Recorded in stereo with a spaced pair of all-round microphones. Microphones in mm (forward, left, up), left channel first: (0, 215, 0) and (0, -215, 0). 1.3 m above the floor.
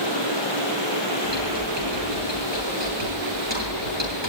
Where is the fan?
80° right, 4.5 m.